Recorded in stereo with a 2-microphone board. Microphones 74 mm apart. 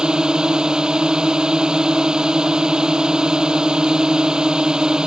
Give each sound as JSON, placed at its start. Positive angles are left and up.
{"t": 0.0, "sound": "a drone", "side_deg": -10}